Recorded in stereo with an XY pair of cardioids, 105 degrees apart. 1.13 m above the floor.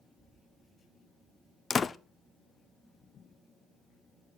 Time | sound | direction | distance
1.7 | a door slam | 35° left | 0.6 m